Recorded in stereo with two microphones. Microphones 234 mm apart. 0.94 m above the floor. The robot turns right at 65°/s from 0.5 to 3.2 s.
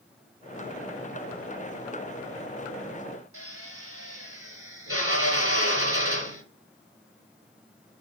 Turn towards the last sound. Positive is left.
turn(degrees=-70)  # may be behind; listen again after turning